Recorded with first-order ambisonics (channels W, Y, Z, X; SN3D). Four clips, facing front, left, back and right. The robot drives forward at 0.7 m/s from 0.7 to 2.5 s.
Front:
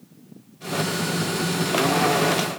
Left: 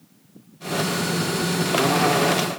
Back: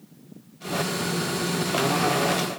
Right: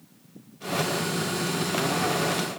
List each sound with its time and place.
Only background noise.